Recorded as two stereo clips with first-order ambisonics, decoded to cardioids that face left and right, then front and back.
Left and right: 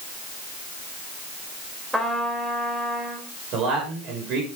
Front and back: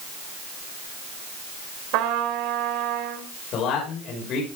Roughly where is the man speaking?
Ahead right.